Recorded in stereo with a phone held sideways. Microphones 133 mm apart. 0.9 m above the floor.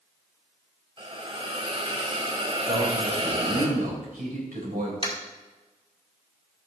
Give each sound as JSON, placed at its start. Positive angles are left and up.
{"t": 1.0, "sound": "a hiss", "side_deg": -40, "distance_m": 2.0}
{"t": 2.7, "sound": "a man speaking", "side_deg": -80, "distance_m": 3.5}
{"t": 5.0, "sound": "tapping", "side_deg": 35, "distance_m": 2.0}